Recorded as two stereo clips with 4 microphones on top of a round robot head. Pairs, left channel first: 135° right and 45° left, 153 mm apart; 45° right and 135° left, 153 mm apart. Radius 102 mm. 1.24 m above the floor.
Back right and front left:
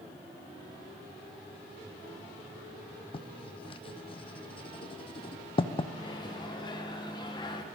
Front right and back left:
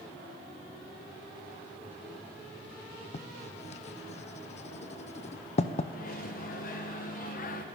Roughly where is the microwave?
Right.